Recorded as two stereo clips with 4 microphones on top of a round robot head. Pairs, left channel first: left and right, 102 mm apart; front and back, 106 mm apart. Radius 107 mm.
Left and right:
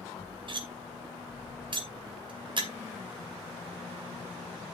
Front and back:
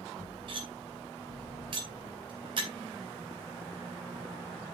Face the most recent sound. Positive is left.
turn(degrees=-130)